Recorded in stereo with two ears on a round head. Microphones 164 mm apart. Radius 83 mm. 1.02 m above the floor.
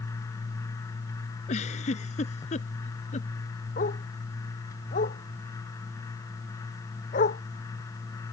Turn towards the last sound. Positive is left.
turn(degrees=40)  # may be behind; listen again after turning